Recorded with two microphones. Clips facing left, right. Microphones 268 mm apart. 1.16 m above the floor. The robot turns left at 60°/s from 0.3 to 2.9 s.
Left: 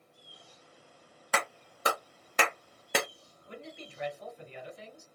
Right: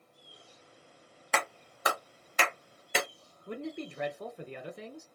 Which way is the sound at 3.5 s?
70° right (ahead or behind).